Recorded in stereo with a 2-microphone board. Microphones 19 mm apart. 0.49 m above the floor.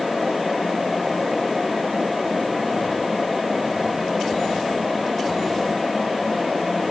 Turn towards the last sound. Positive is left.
No sound to turn to.